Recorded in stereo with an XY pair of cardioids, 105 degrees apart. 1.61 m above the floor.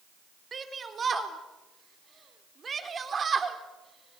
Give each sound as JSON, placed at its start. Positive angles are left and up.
{"t": 0.5, "sound": "a shout", "azimuth_deg": -35, "distance_m": 4.0}